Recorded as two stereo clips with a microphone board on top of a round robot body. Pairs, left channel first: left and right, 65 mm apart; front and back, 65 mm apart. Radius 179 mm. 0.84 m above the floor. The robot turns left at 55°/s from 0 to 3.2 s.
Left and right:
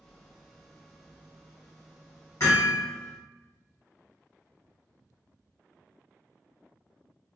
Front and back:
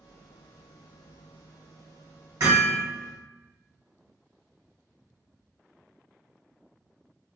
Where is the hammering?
135° left, 1.5 m; by 2.8 s 110° left, 1.5 m.